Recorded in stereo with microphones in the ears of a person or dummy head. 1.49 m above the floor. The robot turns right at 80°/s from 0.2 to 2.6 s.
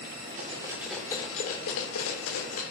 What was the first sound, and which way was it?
Cutlery clinking, 40° right (ahead or behind).